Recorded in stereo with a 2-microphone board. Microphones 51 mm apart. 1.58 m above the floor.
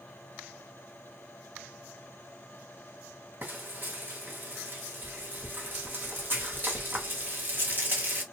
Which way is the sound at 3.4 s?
40° right (ahead or behind).